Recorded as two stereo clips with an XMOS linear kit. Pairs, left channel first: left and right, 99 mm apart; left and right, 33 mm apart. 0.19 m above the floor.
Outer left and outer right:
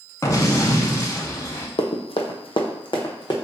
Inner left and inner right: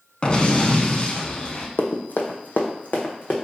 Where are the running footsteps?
75° left (ahead or behind), 0.5 m; by 3.4 s 50° left (ahead or behind), 1.1 m.